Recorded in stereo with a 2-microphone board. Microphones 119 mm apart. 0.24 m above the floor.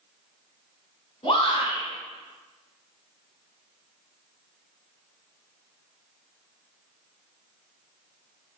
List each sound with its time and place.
1.2 s a shout: 45° left (ahead or behind), 1.6 m